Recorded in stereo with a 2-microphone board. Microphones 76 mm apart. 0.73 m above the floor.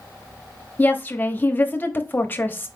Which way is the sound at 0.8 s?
25° left (ahead or behind).